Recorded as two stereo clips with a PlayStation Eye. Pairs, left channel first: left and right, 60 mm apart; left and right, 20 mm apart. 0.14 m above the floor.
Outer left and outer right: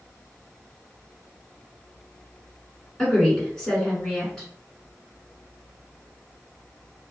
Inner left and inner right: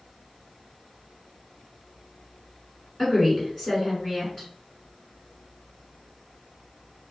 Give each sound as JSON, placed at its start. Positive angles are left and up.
{"t": 3.0, "sound": "a woman speaking", "side_deg": 10, "distance_m": 1.8}